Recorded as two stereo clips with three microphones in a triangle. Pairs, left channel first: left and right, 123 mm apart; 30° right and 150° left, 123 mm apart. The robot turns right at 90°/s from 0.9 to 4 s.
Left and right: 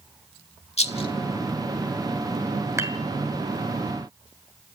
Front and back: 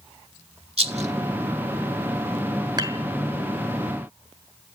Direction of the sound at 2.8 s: 155° right.